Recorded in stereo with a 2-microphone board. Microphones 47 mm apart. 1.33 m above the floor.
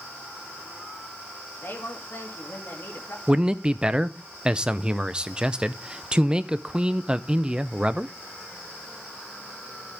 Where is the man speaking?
20° right (ahead or behind), 0.7 m.